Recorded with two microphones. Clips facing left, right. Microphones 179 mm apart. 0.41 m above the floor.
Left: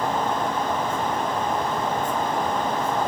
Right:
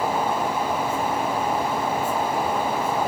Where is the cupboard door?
I don't hear a cupboard door.